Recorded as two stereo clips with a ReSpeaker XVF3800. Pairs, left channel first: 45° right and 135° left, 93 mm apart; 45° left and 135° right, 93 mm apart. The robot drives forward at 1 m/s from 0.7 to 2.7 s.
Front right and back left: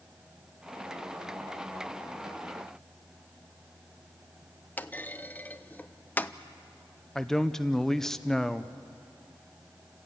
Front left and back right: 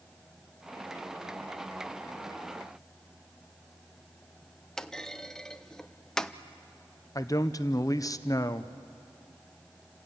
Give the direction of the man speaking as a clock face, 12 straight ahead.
11 o'clock.